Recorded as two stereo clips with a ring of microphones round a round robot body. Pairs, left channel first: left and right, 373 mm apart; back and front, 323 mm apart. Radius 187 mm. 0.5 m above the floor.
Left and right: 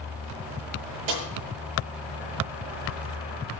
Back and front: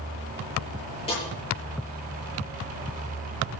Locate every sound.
1.1 s a snare drum: 105° right, 8.5 m